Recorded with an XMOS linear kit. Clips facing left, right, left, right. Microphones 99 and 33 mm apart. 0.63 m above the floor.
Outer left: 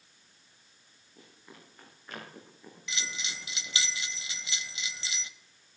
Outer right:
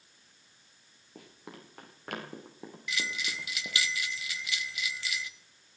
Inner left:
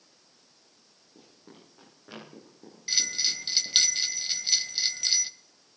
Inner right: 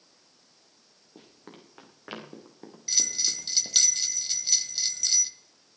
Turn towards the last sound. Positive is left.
turn(degrees=25)  # may be behind; listen again after turning